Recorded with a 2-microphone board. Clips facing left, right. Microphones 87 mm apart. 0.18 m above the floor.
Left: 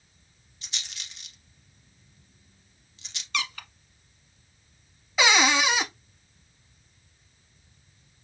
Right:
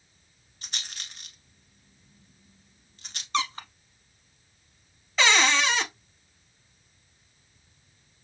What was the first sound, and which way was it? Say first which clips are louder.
A rattle: right 2 dB; 50° right (ahead or behind).